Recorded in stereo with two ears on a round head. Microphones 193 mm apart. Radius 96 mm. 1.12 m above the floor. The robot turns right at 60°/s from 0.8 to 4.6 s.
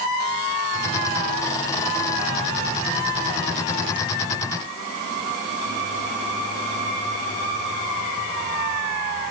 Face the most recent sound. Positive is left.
No sound to turn to.